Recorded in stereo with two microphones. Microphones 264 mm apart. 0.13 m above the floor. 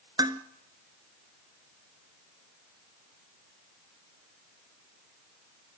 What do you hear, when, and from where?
0.2 s dishes clattering: 15° right (ahead or behind), 1.1 m